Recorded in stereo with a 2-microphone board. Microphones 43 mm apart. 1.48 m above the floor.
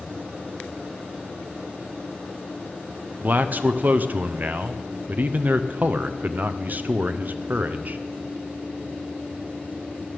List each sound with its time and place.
3.2 s a man speaking: 45° right (ahead or behind), 0.5 m